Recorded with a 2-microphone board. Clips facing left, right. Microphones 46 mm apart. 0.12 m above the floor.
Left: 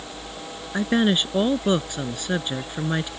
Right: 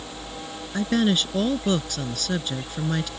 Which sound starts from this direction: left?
A woman speaking, at 0.7 s.